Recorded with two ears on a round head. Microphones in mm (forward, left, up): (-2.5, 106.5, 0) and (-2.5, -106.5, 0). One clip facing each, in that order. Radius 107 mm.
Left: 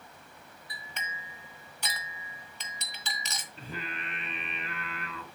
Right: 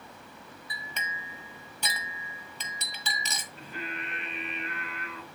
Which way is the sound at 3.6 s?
60° left (ahead or behind).